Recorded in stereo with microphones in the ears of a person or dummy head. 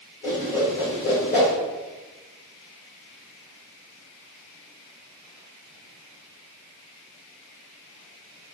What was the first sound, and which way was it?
A whoosh, 30° left (ahead or behind).